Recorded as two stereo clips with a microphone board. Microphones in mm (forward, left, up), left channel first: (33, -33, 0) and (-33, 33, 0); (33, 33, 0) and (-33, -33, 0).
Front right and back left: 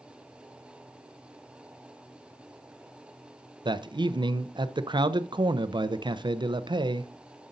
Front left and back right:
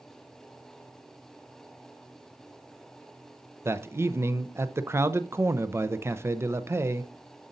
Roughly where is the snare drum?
No snare drum in this recording.